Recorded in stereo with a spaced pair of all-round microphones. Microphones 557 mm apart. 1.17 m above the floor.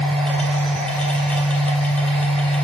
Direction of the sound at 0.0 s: Centre (ahead or behind).